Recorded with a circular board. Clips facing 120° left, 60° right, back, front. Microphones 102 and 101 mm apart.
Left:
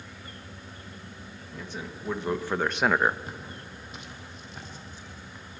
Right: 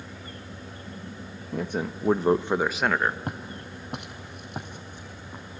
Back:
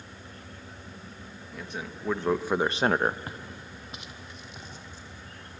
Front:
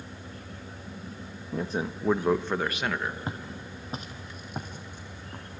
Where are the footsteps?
65° right, 1.9 m; by 5.6 s 25° right, 3 m.